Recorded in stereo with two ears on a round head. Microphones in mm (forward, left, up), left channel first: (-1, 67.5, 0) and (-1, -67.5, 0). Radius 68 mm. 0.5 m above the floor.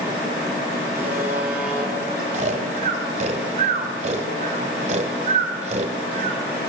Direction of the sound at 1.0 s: 15° right (ahead or behind).